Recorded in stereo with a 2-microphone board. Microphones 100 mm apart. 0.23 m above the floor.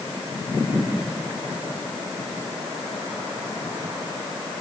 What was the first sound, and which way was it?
Only background noise.